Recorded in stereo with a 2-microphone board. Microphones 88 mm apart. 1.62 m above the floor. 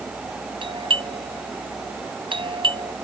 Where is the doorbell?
75° right (ahead or behind).